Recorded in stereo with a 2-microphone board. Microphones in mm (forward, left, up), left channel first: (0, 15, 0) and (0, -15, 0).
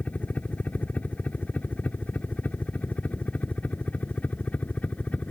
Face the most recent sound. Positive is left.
turn(degrees=45)  # may be behind; listen again after turning